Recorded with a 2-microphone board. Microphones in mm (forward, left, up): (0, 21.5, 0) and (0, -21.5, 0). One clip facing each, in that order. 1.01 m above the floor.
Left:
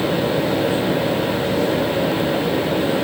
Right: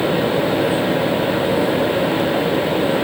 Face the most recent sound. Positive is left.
No sound to turn to.